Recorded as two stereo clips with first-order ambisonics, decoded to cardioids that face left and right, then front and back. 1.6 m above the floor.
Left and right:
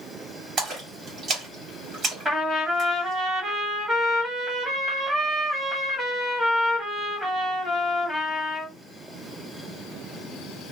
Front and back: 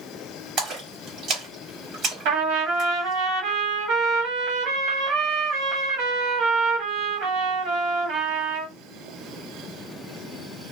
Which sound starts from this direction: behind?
A trumpet, at 2.2 s.